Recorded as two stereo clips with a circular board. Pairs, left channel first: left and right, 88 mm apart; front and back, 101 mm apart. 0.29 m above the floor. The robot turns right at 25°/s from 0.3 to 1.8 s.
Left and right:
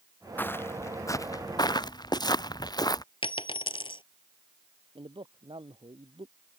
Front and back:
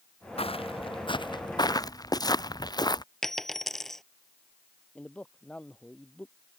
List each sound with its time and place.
0.4 s footsteps: 20° left; by 3.0 s 45° left
3.2 s a dropped coin: 85° left
5.0 s a man speaking: 80° right